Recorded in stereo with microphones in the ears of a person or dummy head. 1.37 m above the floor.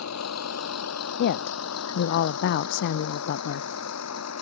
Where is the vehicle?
90° left; by 4.4 s 85° left.